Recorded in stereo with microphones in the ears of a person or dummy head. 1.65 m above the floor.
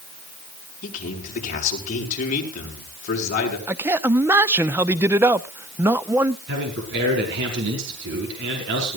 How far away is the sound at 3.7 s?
About 0.8 m.